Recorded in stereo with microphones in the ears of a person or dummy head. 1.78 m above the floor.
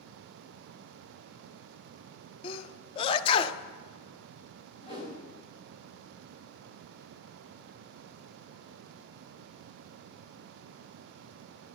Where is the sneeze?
35° left (ahead or behind), 0.6 m.